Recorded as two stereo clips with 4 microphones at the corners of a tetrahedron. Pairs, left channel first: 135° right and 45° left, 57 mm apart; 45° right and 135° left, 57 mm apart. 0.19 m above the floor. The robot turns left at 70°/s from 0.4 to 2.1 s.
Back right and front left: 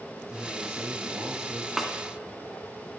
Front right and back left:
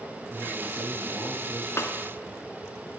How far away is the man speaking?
About 3 m.